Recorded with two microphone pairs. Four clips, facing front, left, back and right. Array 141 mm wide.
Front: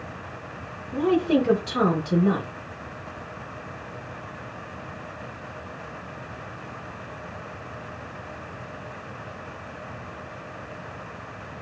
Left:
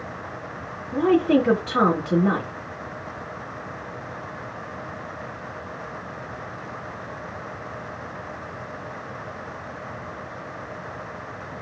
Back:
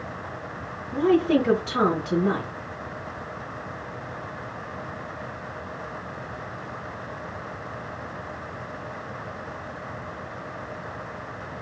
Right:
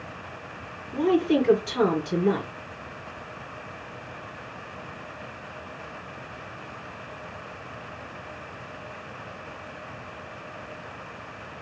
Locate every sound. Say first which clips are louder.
0.9 s a woman speaking: left 3 dB, back 1 dB; 95° left, 3 m